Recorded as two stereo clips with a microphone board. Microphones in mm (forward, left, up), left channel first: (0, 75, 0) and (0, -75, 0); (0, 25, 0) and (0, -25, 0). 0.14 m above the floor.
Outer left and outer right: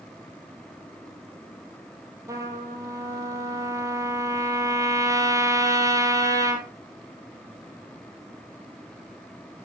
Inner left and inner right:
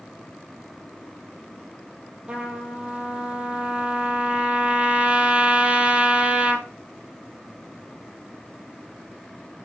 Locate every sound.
2.3 s a trumpet: 20° right (ahead or behind), 2.0 m